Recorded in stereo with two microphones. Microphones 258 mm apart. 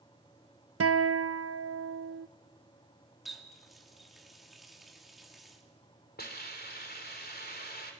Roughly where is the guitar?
Right.